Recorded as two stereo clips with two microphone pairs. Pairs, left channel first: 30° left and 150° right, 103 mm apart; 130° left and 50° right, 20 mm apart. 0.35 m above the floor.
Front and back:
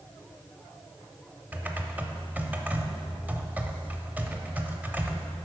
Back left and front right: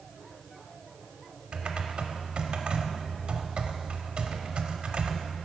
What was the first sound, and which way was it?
Typing on a keyboard, 75° right.